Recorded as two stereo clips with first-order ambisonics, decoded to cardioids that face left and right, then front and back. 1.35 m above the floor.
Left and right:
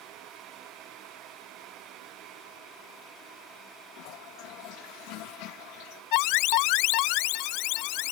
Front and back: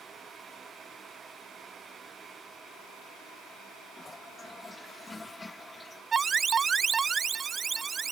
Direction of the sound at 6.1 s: 110° left.